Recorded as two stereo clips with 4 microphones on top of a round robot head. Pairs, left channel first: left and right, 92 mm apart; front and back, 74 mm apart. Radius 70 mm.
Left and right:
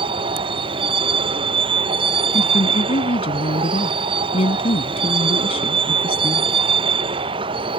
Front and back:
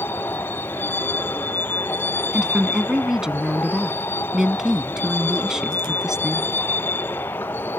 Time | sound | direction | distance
0.0 | a vehicle | 70° right | ?
2.3 | a woman speaking | 100° left | ?